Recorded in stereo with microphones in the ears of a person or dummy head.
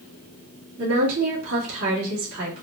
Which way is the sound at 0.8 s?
80° right.